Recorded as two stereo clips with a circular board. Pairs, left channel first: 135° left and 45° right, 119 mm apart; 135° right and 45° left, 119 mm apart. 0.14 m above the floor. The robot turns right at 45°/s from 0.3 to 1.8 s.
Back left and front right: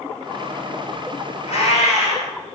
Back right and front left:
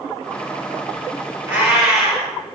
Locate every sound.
1.5 s a cat meowing: 120° left, 1.5 m; by 2.3 s 135° left, 1.5 m